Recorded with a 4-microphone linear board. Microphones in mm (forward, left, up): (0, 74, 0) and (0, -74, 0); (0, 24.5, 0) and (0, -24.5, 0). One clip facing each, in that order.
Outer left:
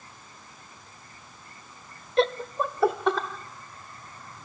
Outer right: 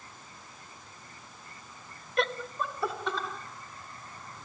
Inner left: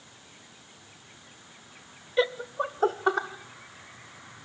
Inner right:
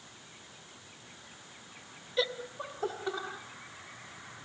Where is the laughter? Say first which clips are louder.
Outer left 7 dB, inner left 7 dB; 25° left (ahead or behind), 0.7 m; by 3.3 s 65° left (ahead or behind), 1.7 m.